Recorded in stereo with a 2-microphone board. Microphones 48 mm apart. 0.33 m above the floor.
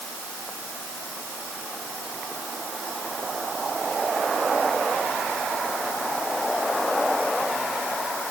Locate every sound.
Only background noise.